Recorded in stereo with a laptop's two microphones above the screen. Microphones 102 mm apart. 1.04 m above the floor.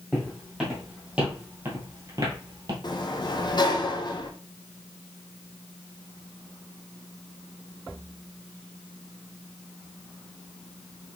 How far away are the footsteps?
About 2 m.